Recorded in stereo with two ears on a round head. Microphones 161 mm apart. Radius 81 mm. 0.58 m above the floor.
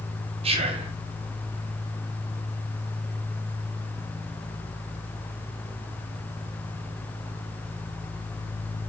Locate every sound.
0.4 s whispering: 30° right (ahead or behind), 0.8 m